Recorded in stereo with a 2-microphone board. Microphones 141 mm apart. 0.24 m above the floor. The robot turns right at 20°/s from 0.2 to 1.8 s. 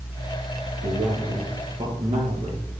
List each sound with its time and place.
0.8 s a man speaking: 75° right (ahead or behind), 5 m; by 2.7 s 60° right (ahead or behind), 5 m